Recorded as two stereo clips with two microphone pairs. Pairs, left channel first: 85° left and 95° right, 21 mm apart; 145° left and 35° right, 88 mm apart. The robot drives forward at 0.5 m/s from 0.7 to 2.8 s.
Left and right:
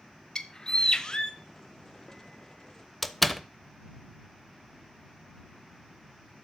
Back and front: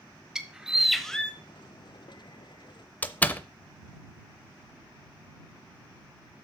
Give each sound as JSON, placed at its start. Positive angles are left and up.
{"t": 0.3, "sound": "a bird", "azimuth_deg": 45, "distance_m": 0.8}
{"t": 3.0, "sound": "a door slam", "azimuth_deg": 165, "distance_m": 0.5}